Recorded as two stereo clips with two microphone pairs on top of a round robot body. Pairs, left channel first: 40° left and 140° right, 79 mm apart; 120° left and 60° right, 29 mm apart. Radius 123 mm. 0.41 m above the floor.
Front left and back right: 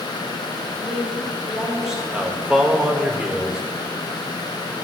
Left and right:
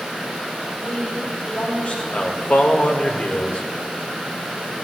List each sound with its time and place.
0.8 s a woman speaking: 110° left, 2 m; by 2.0 s 130° left, 3.5 m
2.1 s a man speaking: 130° left, 1.6 m